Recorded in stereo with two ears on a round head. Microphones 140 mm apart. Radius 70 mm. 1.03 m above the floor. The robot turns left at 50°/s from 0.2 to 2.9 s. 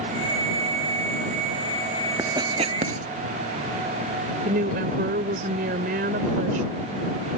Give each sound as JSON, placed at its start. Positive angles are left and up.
{"t": 2.2, "sound": "writing", "side_deg": -20}
{"t": 4.5, "sound": "a woman speaking", "side_deg": -60}